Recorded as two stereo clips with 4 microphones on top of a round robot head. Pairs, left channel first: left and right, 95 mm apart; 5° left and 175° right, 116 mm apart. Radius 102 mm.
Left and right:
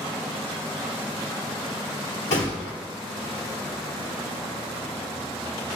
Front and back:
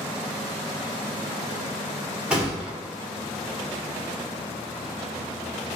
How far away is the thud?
About 2.5 m.